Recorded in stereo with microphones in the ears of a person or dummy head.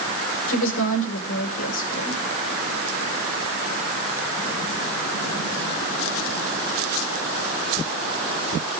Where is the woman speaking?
65° left (ahead or behind), 6 m.